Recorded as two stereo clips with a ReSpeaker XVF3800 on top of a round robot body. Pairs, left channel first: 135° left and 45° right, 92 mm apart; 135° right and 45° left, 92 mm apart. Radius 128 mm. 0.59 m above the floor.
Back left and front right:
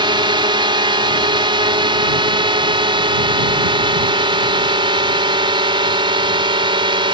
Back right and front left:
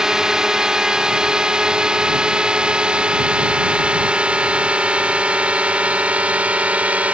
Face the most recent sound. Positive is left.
turn(degrees=-30)